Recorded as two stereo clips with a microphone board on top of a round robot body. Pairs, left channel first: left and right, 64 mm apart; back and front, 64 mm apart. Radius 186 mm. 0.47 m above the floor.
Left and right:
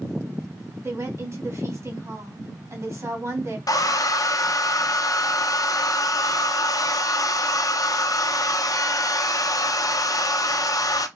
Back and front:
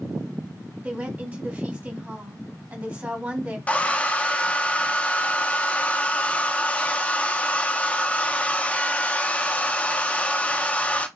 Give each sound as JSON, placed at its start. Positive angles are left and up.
{"t": 0.8, "sound": "a woman speaking", "azimuth_deg": -65, "distance_m": 1.9}
{"t": 3.7, "sound": "a hair dryer", "azimuth_deg": 110, "distance_m": 0.6}